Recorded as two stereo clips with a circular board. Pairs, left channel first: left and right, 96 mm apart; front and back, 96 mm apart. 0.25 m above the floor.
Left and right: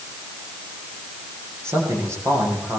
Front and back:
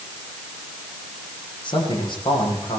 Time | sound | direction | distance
1.6 | a man speaking | 30° right | 10 m